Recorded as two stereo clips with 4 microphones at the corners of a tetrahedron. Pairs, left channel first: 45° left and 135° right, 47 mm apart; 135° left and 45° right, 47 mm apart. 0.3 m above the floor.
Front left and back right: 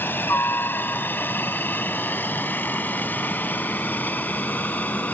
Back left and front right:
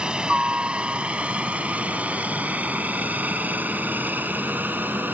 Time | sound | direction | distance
0.0 | a helicopter | 20° left | ?